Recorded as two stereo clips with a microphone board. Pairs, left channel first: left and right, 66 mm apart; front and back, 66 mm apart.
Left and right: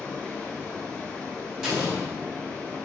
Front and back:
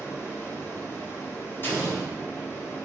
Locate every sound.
0.0 s running water: 25° left, 1.0 m
1.6 s an explosion: 15° right, 1.2 m